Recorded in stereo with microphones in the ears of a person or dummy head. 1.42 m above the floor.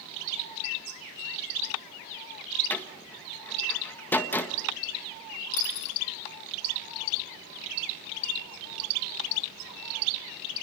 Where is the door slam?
10° left (ahead or behind), 1.4 m.